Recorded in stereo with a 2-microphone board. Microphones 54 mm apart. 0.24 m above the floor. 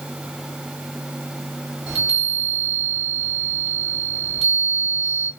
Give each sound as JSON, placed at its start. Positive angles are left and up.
{"t": 1.9, "sound": "a chime", "side_deg": -5, "distance_m": 1.1}